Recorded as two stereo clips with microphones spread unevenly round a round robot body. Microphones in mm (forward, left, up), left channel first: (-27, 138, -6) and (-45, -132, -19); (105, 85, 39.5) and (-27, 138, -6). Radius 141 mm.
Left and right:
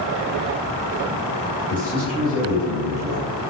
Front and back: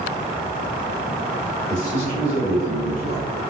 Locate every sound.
1.7 s a man speaking: 5° left, 1.8 m; by 3.4 s 25° right, 2 m